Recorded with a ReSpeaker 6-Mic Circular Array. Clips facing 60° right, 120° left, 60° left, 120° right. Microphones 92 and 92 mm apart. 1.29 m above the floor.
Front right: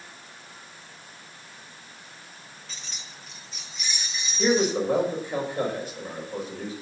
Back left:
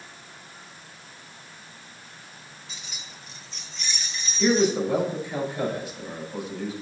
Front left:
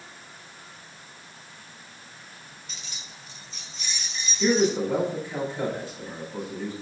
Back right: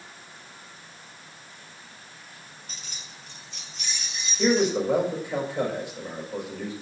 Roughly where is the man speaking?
Right.